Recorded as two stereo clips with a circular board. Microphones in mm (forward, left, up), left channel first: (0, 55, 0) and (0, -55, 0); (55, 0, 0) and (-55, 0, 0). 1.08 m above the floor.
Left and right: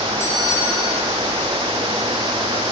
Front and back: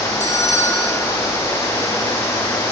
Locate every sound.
0.2 s a bell: 5° right, 7.5 m